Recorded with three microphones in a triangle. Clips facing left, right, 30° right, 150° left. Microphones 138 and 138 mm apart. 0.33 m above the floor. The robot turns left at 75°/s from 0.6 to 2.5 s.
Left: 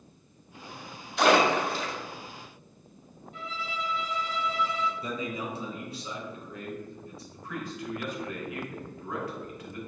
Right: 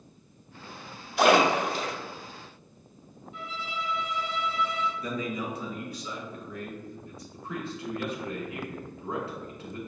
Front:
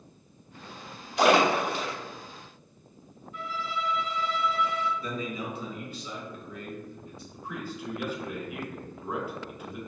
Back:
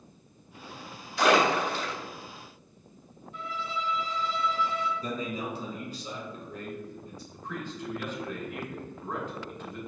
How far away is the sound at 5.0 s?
About 1.4 m.